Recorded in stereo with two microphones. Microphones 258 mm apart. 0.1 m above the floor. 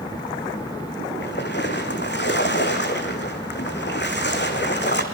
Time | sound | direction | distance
1.2 | a splash | 45° left (ahead or behind) | 2.5 m